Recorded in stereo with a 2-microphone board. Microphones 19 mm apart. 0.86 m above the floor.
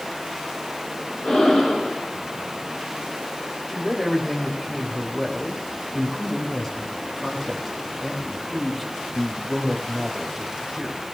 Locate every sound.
1.2 s breathing: 60° left (ahead or behind), 6 m
3.7 s a man speaking: 10° left (ahead or behind), 4 m